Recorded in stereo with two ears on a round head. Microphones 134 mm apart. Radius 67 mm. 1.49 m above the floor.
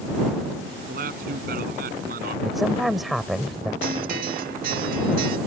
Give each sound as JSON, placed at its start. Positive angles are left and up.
{"t": 0.9, "sound": "a man speaking", "side_deg": -65}
{"t": 2.5, "sound": "a woman speaking", "side_deg": 0}
{"t": 3.8, "sound": "a guitar", "side_deg": -65}